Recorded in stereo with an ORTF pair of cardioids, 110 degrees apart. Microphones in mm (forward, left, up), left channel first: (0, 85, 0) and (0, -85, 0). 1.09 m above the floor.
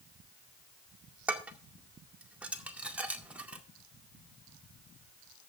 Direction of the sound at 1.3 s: 5° right.